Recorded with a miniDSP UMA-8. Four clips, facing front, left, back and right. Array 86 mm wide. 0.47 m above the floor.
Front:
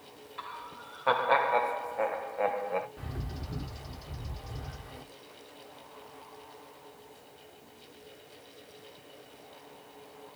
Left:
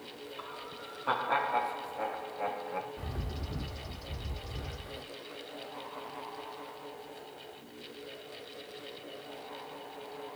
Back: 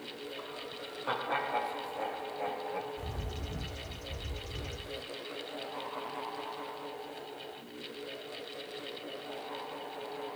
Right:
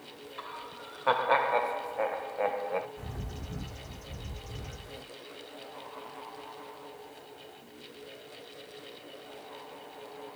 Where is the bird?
40° left, 1.2 m.